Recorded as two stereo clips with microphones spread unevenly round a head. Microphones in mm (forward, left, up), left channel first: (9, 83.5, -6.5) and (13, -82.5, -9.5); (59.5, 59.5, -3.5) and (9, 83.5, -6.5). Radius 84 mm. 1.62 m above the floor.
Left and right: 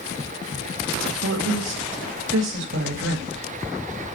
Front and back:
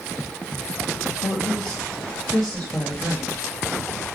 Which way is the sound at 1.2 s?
105° right.